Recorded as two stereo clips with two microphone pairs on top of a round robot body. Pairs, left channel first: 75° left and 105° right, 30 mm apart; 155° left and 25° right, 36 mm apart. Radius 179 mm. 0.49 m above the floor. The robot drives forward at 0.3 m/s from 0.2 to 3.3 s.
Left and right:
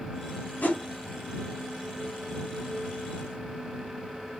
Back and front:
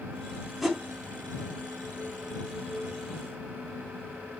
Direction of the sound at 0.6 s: 65° left.